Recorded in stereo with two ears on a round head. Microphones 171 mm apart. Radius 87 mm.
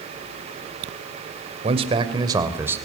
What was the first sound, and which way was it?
A man speaking, 30° right (ahead or behind).